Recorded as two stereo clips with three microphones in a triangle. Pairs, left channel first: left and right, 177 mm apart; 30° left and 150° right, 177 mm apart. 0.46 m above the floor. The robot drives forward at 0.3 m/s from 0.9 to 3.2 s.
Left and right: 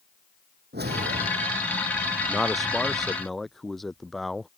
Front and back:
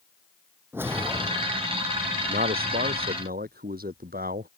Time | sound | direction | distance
0.7 | a whoosh | 75° right | ?
2.3 | a man speaking | straight behind | ?